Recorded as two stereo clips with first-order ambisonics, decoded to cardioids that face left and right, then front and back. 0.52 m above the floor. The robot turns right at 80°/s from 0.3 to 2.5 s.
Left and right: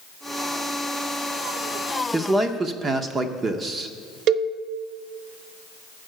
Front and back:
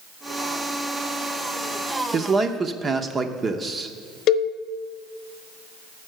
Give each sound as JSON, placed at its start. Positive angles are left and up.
{"t": 2.1, "sound": "a man speaking", "azimuth_deg": -160, "distance_m": 0.7}
{"t": 4.3, "sound": "a cowbell", "azimuth_deg": -45, "distance_m": 0.8}